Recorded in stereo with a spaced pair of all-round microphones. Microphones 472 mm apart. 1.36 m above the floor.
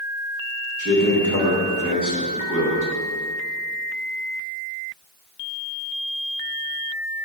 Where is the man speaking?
40° left (ahead or behind), 1.9 m.